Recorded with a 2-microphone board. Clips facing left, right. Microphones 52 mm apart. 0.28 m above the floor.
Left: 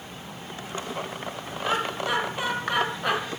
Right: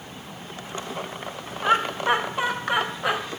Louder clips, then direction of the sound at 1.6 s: Right 5 dB; 40° right (ahead or behind).